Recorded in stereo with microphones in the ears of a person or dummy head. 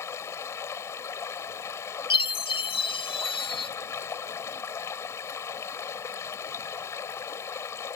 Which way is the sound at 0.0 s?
20° left (ahead or behind).